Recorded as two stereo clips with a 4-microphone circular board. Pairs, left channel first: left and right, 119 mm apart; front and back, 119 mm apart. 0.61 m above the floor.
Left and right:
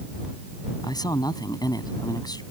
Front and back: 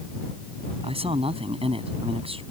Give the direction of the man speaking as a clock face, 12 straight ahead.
7 o'clock.